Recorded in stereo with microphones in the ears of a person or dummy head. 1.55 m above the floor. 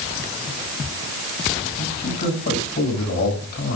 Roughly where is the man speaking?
Left.